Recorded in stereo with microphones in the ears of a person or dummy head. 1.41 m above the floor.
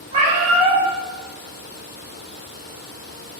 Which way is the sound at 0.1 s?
45° right (ahead or behind).